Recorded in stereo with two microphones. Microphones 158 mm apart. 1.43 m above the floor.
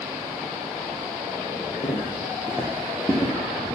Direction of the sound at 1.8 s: 25° left (ahead or behind).